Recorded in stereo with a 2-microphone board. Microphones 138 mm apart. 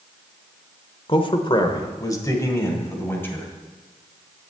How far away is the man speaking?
About 1.1 m.